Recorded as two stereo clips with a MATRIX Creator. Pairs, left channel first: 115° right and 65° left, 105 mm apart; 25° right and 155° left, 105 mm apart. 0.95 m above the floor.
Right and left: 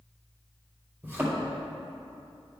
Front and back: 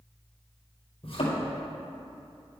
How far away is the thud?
About 2.5 m.